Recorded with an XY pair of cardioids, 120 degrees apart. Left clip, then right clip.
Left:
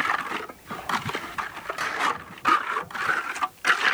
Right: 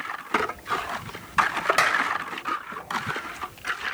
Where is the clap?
65° right, 6 m.